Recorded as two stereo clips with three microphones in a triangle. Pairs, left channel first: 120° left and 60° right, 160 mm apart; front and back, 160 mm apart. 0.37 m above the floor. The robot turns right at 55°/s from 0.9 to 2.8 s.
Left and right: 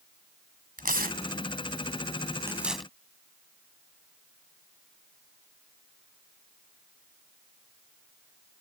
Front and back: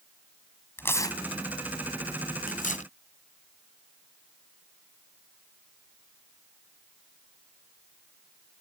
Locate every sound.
0.8 s tearing paper: 75° right; by 2.9 s 30° left